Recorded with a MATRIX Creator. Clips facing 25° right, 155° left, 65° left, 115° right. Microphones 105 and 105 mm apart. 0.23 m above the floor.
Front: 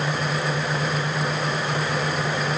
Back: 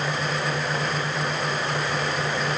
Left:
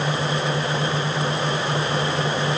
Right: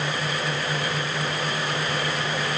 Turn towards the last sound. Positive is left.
No sound to turn to.